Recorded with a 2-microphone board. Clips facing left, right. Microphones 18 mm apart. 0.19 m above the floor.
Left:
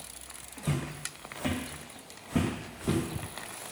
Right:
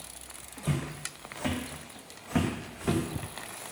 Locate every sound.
0.6 s footsteps: centre (ahead or behind), 0.8 m; by 3.0 s 70° right (ahead or behind), 0.8 m